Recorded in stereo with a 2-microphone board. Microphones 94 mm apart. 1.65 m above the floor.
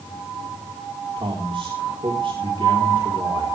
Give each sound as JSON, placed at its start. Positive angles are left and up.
{"t": 1.2, "sound": "a man speaking", "side_deg": -65, "distance_m": 4.0}